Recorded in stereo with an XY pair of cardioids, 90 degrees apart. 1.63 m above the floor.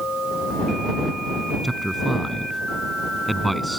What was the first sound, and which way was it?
A man speaking, 5° right.